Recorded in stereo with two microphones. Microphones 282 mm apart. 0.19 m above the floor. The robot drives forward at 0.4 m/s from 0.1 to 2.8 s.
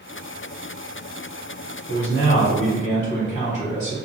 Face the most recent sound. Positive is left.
turn(degrees=25)  # may be behind; listen again after turning